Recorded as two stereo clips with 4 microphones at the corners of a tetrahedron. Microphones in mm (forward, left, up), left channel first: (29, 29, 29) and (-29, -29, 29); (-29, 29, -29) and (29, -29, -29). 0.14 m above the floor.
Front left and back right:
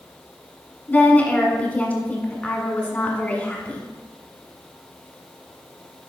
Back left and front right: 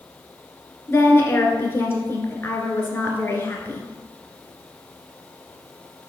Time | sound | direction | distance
0.9 | a woman speaking | 100° left | 1.5 m